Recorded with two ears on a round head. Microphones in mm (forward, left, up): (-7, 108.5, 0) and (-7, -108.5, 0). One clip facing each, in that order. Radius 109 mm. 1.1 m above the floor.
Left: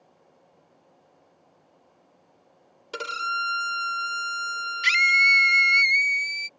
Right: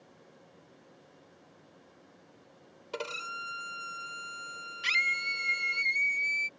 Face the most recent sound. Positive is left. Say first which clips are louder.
# left 10 dB
turn(degrees=30)  # may be behind; listen again after turning